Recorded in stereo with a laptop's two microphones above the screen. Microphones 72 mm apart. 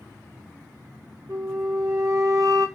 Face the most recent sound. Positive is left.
turn(degrees=-50)  # may be behind; listen again after turning